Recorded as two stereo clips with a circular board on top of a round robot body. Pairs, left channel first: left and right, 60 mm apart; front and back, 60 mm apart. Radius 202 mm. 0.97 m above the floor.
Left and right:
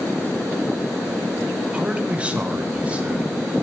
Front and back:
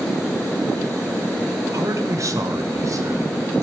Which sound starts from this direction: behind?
A man speaking, at 1.7 s.